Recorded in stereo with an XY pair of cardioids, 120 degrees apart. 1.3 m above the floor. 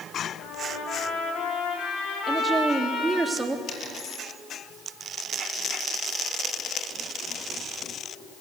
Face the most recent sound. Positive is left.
turn(degrees=65)